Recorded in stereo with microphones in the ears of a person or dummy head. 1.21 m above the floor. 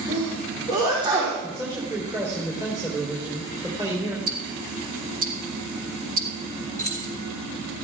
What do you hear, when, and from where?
0.1 s a sneeze: 25° right (ahead or behind), 3 m
1.4 s a man speaking: 20° right (ahead or behind), 3.5 m
4.3 s ticking: 45° right (ahead or behind), 1.4 m
6.8 s keys jangling: 20° left (ahead or behind), 1.9 m